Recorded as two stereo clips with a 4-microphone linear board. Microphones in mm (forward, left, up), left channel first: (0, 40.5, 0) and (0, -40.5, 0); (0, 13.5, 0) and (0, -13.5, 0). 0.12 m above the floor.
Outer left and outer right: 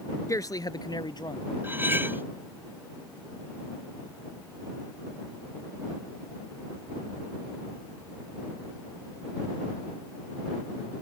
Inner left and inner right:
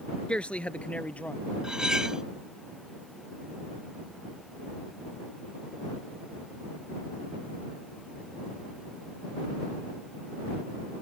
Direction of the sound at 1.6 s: 25° right (ahead or behind).